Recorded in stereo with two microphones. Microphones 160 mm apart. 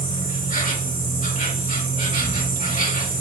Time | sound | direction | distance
0.0 | an insect | 55° left (ahead or behind) | 1.6 m